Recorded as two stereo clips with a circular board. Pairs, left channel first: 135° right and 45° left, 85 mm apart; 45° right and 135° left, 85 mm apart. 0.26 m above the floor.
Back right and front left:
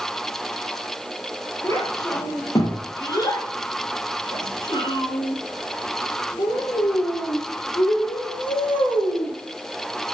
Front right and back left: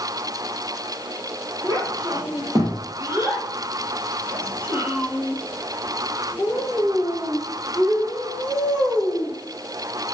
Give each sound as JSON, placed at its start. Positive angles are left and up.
{"t": 1.6, "sound": "a child speaking", "azimuth_deg": 175, "distance_m": 4.5}